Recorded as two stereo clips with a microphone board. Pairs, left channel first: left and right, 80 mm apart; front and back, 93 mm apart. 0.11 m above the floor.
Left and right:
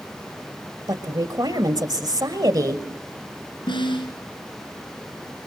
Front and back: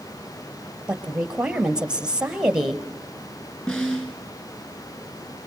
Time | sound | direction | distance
0.9 | a woman speaking | 100° right | 2.5 m
3.7 | a snare drum | 75° left | 7 m